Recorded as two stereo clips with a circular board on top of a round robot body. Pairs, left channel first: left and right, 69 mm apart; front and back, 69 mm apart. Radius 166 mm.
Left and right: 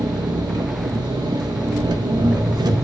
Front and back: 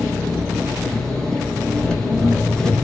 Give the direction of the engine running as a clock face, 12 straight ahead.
3 o'clock.